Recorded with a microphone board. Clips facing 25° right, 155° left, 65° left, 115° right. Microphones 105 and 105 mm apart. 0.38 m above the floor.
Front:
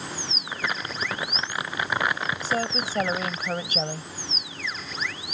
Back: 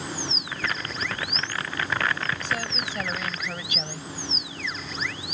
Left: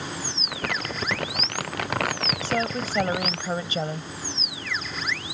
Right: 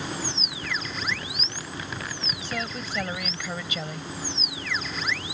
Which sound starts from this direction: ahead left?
Crumpling, at 0.5 s.